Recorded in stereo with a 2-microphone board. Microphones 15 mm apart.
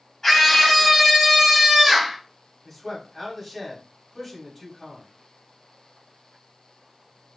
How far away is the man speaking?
About 1.0 m.